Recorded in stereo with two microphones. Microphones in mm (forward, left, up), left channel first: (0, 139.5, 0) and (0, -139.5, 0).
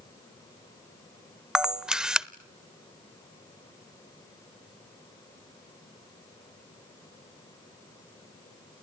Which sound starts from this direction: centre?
A camera shutter, at 1.6 s.